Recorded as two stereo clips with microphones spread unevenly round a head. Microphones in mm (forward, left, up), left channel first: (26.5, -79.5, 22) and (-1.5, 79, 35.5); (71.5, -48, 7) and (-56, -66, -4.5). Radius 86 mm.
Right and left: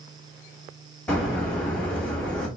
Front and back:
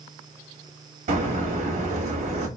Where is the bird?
165° right, 1.4 m.